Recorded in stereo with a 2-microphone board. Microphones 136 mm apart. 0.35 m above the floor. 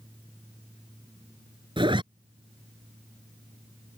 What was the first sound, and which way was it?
A zipper, 35° right (ahead or behind).